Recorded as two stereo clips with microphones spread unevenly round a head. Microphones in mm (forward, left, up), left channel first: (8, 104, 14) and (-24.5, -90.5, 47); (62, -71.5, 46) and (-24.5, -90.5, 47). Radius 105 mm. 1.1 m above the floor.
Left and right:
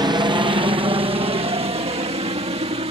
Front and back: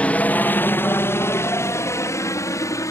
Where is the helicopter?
40° right; by 2.9 s 35° right.